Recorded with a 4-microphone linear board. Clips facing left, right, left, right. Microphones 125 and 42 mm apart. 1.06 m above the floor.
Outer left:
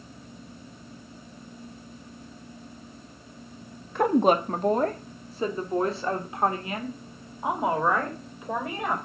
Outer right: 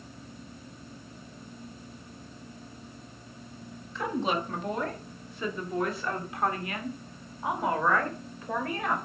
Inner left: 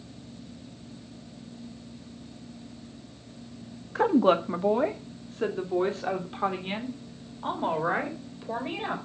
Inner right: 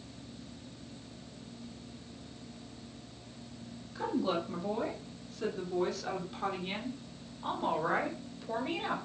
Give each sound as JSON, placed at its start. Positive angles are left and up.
{"t": 4.0, "sound": "a woman speaking", "side_deg": 55, "distance_m": 1.3}